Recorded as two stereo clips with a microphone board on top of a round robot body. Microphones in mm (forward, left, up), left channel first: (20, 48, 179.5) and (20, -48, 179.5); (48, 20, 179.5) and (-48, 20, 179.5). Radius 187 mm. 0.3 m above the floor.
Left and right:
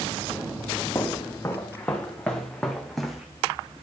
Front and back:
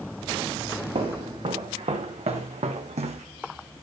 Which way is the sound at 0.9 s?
160° left.